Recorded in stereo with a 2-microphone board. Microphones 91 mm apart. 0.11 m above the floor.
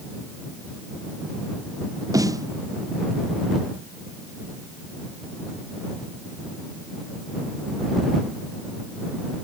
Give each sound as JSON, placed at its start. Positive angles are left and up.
{"t": 2.1, "sound": "a snare drum", "side_deg": -40}